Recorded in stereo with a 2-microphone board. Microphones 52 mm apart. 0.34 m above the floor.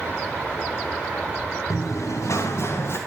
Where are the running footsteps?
80° left, 3 m; by 3.0 s 40° left (ahead or behind), 3 m.